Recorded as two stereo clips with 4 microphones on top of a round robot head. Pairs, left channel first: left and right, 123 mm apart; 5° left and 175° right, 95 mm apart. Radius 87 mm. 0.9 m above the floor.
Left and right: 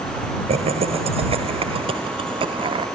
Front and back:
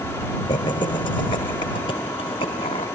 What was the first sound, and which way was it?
Laughter, 50° right.